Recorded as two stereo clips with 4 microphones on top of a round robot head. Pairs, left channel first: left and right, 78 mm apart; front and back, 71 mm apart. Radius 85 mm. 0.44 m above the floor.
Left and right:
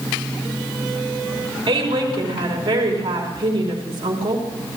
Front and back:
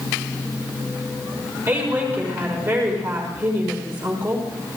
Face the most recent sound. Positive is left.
turn(degrees=-125)